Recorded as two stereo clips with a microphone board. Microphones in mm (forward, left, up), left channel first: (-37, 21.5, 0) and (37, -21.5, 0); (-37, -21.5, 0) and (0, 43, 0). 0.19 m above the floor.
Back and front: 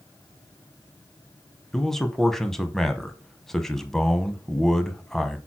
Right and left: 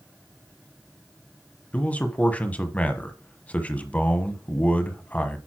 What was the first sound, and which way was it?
A man speaking, 130° right.